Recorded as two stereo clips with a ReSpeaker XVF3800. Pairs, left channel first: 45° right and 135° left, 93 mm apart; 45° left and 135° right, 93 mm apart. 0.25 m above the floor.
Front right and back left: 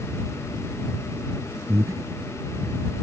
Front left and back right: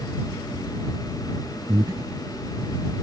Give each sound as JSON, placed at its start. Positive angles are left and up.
{"t": 1.7, "sound": "breathing", "azimuth_deg": -175}